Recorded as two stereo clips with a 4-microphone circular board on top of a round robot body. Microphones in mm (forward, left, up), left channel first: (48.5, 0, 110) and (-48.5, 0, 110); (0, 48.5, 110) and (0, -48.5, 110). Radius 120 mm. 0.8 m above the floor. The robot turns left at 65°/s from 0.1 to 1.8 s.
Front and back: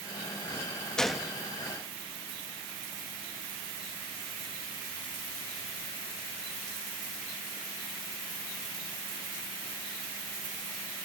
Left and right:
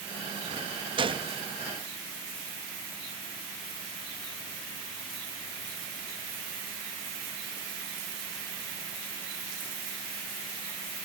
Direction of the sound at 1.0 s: 80° right.